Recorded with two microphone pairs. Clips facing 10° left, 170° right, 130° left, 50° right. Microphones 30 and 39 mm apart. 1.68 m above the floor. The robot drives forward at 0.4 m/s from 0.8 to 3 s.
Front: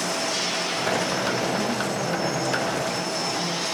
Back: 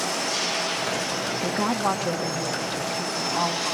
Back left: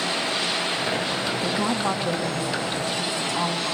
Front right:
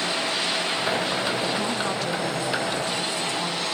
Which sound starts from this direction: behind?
A woman speaking, at 1.4 s.